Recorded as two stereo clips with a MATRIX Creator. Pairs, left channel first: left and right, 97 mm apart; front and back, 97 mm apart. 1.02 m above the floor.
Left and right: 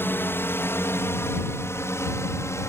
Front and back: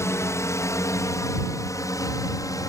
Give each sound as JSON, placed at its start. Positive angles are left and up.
{"t": 0.0, "sound": "a drone", "azimuth_deg": 40}